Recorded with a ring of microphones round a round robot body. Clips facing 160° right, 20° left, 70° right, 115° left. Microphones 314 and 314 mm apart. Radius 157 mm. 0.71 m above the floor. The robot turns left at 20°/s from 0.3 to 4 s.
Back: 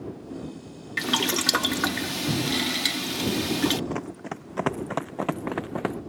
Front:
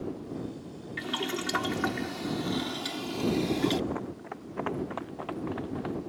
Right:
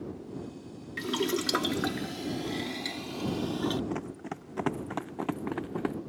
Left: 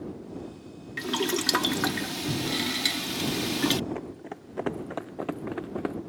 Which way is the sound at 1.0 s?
160° right.